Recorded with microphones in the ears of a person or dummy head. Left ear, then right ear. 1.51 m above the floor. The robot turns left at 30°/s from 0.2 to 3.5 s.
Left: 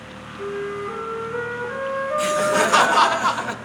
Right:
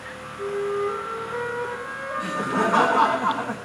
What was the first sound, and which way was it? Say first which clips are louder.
A flute: right 2 dB; 165° right.